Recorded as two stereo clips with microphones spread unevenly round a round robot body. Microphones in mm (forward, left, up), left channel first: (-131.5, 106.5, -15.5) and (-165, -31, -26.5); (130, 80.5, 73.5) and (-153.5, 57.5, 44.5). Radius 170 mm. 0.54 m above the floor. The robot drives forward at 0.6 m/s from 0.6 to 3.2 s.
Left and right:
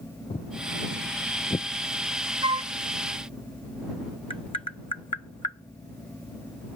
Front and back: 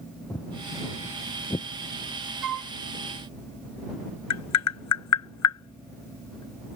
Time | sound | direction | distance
0.3 | footsteps | 75° left | ?
2.4 | a flute | 155° right | ?
4.3 | tapping | 15° left | ?